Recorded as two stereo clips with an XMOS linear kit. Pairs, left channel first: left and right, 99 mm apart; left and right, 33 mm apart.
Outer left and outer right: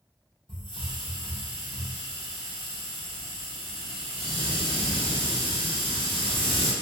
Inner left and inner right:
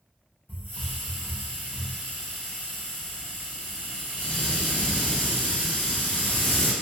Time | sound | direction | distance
0.5 | a hiss | 55° left (ahead or behind) | 0.7 m